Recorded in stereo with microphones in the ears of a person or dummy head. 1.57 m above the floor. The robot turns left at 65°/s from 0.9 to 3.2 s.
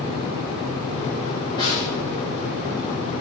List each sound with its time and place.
1.6 s a snare drum: 20° left (ahead or behind), 3.5 m; by 1.9 s 45° left (ahead or behind), 3.5 m